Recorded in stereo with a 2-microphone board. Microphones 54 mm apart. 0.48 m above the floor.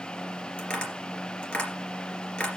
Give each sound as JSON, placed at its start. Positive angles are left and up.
{"t": 0.6, "sound": "tapping", "side_deg": 25, "distance_m": 3.0}